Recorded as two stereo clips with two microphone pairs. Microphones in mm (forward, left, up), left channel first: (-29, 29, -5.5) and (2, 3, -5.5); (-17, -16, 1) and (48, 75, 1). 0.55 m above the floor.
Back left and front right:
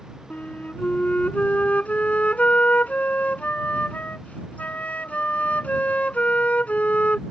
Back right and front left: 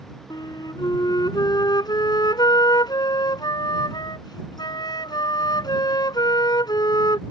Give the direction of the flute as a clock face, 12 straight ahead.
6 o'clock.